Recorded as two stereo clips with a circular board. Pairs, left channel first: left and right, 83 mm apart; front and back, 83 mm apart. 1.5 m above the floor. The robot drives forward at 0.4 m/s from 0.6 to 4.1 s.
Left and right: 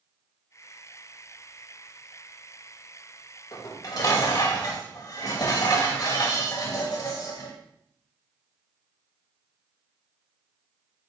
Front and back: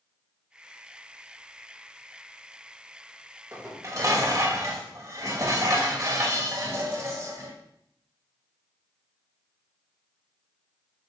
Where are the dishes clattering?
125° left, 1.4 m; by 7.5 s 135° left, 1.5 m.